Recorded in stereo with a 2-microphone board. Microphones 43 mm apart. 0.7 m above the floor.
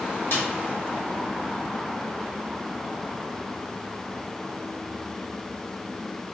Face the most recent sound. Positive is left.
turn(degrees=65)  # may be behind; listen again after turning